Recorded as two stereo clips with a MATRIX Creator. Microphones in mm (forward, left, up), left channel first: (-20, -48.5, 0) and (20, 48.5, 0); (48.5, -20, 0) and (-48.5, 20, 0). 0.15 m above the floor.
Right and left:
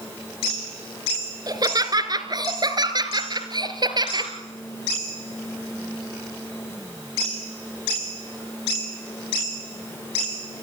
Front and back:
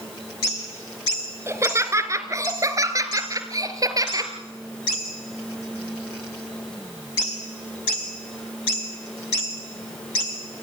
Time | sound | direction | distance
1.5 | laughter | 105° left | 2.5 m